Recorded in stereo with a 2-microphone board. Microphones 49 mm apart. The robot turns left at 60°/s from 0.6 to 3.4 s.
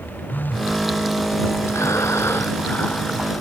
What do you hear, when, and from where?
0.3 s a phone buzzing: 40° left (ahead or behind); by 0.8 s 55° left (ahead or behind)
1.7 s breathing: 100° left; by 3.3 s 5° left